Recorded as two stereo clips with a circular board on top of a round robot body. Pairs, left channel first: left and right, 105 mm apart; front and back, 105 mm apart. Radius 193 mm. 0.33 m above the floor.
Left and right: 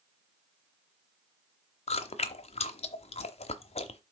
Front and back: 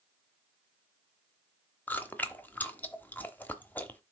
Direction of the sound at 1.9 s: 75° left.